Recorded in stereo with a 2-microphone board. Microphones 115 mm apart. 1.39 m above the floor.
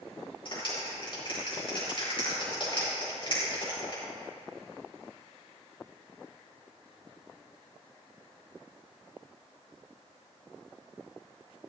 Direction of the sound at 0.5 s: 50° left (ahead or behind).